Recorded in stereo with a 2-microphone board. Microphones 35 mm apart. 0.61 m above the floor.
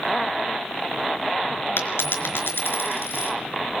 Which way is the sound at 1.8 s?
85° left.